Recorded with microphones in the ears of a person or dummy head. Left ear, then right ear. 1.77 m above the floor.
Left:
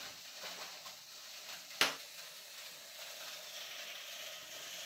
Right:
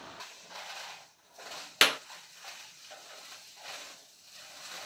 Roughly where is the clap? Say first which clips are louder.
Right 9 dB; right.